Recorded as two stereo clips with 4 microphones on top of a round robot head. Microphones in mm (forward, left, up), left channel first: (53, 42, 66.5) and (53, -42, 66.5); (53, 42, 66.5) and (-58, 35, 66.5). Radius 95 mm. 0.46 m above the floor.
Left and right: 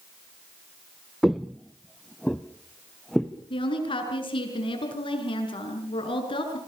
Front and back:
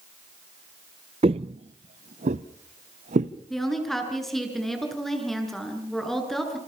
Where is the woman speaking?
90° left, 7 m.